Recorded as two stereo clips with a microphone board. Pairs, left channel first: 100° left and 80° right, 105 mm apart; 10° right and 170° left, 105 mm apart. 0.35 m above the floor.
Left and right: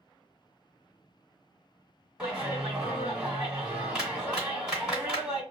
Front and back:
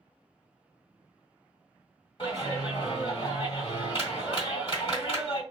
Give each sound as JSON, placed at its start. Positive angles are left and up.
{"t": 2.2, "sound": "a clap", "azimuth_deg": 0, "distance_m": 1.7}